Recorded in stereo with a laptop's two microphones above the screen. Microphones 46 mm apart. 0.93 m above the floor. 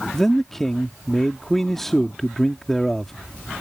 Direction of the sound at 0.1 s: 10° left (ahead or behind).